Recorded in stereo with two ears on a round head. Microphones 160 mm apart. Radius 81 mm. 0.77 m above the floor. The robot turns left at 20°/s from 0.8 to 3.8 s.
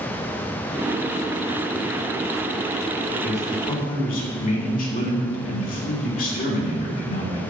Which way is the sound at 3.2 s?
55° left (ahead or behind).